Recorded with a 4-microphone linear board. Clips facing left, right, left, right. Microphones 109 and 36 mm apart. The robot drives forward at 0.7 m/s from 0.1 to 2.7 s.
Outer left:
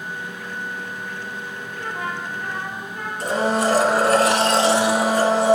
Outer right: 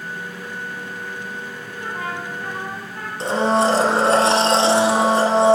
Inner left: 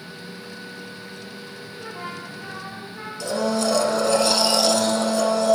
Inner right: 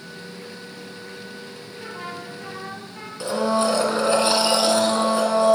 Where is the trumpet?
40° right (ahead or behind), 4.5 m; by 3.1 s 45° right (ahead or behind), 4 m.